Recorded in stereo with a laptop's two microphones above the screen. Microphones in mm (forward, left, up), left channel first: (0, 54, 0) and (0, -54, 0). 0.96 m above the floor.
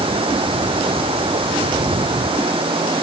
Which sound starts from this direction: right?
Running water, at 0.0 s.